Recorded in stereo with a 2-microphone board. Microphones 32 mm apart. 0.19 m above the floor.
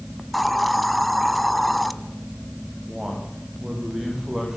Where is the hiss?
5° left (ahead or behind), 1.3 m.